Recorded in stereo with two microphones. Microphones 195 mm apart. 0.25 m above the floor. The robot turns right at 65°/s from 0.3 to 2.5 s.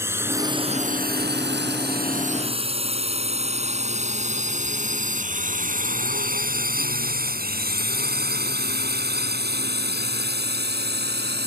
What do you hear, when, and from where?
0.0 s a drone: 15° right (ahead or behind); by 11.5 s 60° right (ahead or behind)